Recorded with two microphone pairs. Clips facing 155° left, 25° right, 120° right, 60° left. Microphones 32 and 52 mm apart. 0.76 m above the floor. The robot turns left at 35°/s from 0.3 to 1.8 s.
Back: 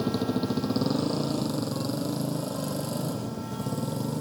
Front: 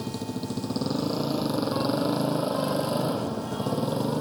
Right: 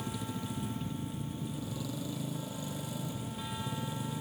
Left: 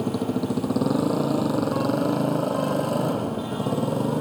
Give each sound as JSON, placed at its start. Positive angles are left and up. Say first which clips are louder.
{"t": 0.0, "sound": "a motorcycle", "louder": "back 5 dB, left 14 dB", "azimuth_deg": 90}